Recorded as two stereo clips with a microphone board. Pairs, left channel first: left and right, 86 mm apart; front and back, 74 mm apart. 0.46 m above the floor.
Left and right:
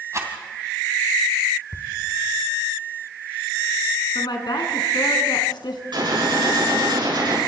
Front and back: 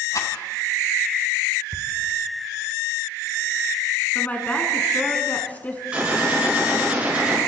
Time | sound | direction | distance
0.1 | a rattle | 40° right | 2.5 m
1.7 | ticking | 145° left | 1.6 m
4.2 | a woman speaking | 65° left | 4 m
5.9 | a gunshot | 110° right | 7.5 m